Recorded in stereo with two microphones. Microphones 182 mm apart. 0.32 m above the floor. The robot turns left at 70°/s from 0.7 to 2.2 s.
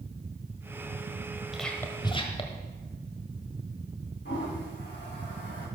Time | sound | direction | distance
1.5 | whispering | centre (ahead or behind) | 1.2 m
4.2 | a toilet flushing | 85° left | 5.5 m